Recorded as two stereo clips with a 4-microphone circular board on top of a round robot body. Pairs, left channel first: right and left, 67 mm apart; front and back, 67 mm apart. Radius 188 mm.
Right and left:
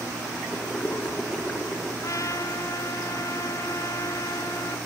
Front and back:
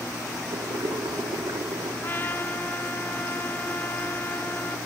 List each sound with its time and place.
0.5 s boiling: 170° right, 3 m
2.0 s a trumpet: 60° right, 1.7 m